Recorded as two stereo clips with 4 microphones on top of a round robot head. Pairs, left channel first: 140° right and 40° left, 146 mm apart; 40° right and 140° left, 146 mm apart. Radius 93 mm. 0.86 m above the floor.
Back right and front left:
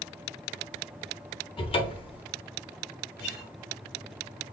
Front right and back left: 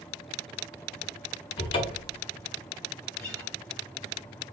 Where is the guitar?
125° right, 2.5 m.